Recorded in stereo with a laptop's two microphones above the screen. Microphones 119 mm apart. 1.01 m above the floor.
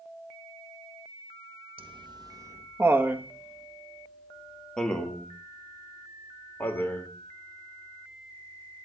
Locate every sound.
1.8 s laughter: 45° right (ahead or behind), 1.0 m; by 8.9 s 20° left (ahead or behind), 4.5 m